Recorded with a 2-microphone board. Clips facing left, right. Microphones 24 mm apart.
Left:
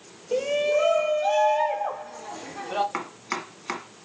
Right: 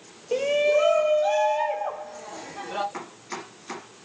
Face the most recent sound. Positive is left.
turn(degrees=60)  # may be behind; listen again after turning